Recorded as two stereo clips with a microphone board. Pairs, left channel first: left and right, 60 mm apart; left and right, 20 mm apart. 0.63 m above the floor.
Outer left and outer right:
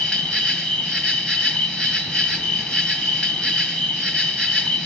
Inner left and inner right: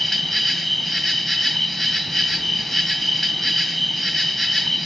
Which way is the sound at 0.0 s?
25° left (ahead or behind).